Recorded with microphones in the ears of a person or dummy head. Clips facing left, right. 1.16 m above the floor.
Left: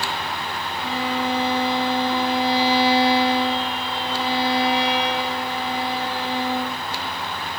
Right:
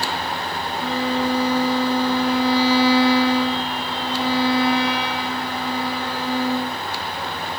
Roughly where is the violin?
Right.